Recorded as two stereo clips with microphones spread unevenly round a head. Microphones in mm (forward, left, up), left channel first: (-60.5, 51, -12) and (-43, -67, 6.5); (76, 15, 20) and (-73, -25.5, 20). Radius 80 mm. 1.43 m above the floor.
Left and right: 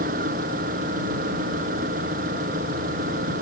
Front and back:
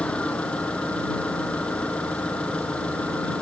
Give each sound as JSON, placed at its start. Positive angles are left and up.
{"t": 0.0, "sound": "an engine running", "azimuth_deg": -65}